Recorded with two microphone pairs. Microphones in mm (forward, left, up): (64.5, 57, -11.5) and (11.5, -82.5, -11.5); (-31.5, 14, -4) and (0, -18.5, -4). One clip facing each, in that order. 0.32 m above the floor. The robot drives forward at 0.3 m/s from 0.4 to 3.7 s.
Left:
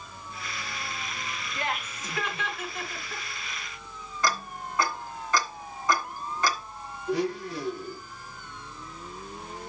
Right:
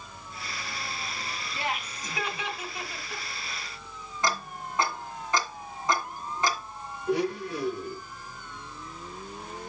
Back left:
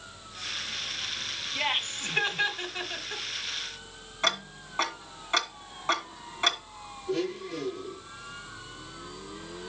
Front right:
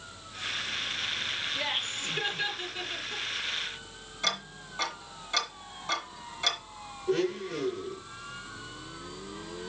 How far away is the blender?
About 4 m.